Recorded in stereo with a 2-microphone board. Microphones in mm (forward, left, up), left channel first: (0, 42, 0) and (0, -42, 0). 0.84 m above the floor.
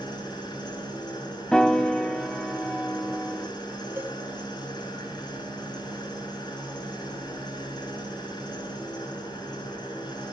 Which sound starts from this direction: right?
A cowbell, at 4.0 s.